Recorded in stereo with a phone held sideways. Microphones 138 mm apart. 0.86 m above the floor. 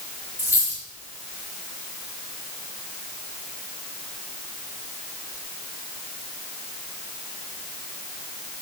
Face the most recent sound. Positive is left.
turn(degrees=20)  # may be behind; listen again after turning